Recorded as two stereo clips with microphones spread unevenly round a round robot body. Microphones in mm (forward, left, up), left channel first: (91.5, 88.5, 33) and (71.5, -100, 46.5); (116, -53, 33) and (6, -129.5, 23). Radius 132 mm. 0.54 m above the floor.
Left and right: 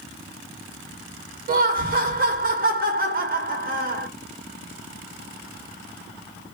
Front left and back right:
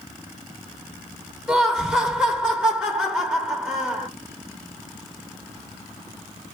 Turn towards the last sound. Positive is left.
turn(degrees=-75)